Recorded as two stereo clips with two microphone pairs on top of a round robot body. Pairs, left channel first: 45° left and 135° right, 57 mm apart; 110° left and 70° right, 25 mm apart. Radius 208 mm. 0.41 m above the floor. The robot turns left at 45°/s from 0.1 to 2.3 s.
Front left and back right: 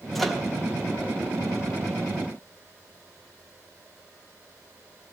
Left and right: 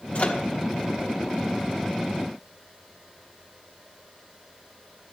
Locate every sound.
0.1 s a microwave: 130° left, 2 m; by 0.4 s 120° left, 2 m